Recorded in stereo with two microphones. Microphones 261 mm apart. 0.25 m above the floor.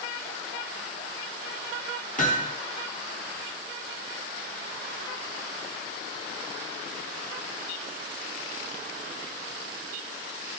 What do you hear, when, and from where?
2.2 s hammering: 30° left (ahead or behind), 2.5 m